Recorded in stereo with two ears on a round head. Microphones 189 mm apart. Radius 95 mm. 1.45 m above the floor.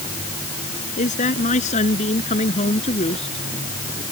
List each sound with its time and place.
1.0 s a man speaking: 35° left (ahead or behind); by 4.0 s 25° left (ahead or behind)